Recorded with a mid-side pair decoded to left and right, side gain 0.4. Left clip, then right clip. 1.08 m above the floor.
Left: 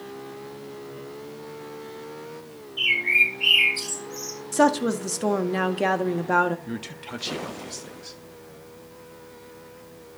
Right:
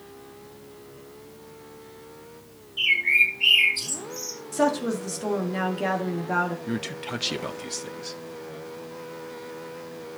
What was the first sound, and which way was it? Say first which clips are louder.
A bird: even; 5° right.